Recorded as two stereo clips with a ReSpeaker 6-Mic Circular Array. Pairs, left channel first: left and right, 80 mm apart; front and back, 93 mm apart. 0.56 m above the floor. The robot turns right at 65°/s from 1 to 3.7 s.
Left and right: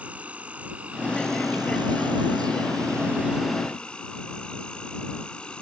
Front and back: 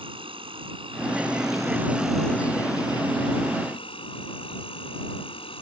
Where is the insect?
165° right; by 5.6 s 10° left.